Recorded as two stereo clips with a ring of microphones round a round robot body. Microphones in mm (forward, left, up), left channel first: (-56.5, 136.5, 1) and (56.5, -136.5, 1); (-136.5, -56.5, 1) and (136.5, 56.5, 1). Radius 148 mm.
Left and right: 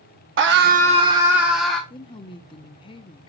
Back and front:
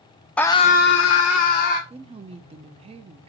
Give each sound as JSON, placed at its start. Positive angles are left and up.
{"t": 0.4, "sound": "a scream", "azimuth_deg": -75, "distance_m": 1.0}
{"t": 1.9, "sound": "a woman speaking", "azimuth_deg": 60, "distance_m": 0.5}